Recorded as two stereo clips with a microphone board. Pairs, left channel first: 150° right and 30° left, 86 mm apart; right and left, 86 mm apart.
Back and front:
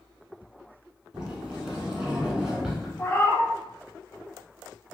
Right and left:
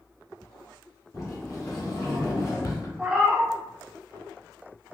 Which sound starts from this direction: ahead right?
A sliding door, at 1.1 s.